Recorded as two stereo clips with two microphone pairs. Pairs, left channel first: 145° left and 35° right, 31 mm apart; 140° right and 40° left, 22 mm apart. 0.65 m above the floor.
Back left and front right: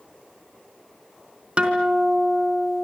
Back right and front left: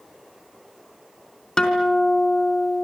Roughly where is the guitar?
Right.